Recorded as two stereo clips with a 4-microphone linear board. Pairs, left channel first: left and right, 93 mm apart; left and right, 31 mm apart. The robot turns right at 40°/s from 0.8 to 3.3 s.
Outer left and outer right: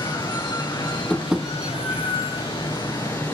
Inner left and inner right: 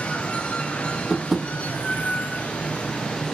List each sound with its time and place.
0.0 s running water: 50° left, 3 m; by 3.3 s 150° left, 3 m
1.1 s tapping: centre (ahead or behind), 1.0 m; by 1.5 s 15° right (ahead or behind), 1.0 m